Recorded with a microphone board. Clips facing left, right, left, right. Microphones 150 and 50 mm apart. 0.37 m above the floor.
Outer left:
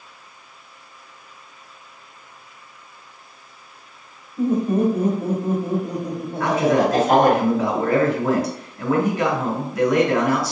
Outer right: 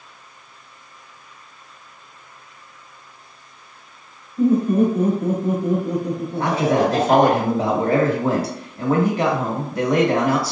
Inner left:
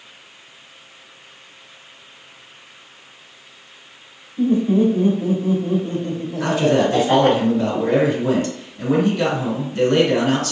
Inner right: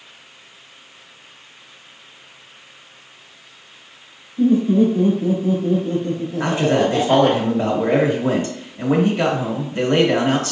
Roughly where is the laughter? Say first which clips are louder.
Outer right 3 dB, inner right 1 dB; left.